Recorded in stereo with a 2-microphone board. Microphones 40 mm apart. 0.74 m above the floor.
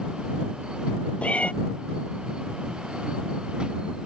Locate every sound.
1.2 s a cat meowing: 35° left (ahead or behind)